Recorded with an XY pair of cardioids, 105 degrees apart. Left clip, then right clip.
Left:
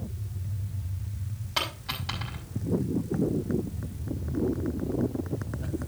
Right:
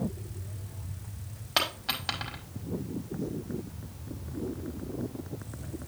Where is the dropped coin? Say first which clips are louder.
Right 2 dB; 45° right, 5.5 m.